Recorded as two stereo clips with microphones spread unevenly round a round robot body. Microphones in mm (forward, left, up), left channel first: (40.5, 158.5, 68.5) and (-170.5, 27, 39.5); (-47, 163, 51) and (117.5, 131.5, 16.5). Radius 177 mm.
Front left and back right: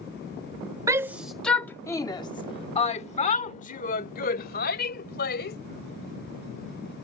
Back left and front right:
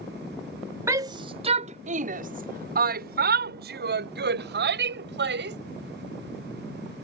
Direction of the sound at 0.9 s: 75° right.